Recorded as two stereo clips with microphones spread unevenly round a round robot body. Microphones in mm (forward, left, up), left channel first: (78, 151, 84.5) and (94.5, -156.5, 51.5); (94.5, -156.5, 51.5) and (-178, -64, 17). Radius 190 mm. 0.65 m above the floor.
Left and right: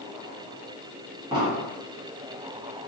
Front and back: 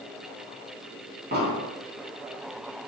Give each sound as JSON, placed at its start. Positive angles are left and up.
{"t": 1.3, "sound": "an explosion", "azimuth_deg": -155, "distance_m": 1.6}